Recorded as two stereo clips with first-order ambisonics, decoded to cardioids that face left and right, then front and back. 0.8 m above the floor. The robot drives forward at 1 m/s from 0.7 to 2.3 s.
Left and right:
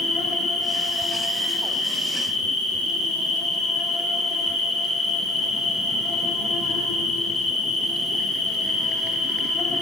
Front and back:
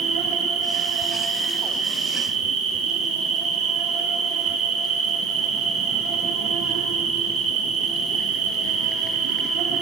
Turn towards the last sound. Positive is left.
turn(degrees=170)